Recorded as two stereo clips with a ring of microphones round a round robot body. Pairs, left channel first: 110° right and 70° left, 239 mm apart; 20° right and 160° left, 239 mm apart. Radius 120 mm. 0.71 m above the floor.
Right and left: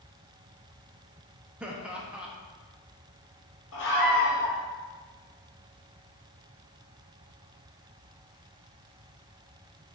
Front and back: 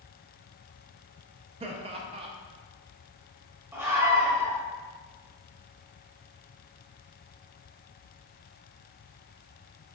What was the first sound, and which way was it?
Laughter, 145° left.